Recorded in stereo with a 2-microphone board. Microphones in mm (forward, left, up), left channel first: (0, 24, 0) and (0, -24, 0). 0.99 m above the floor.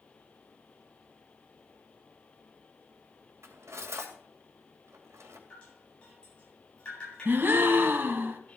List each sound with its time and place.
3.4 s cutlery clinking: 85° right, 2.5 m
5.5 s dripping: 20° left (ahead or behind), 9.5 m
7.2 s a gasp: 50° right (ahead or behind), 1.5 m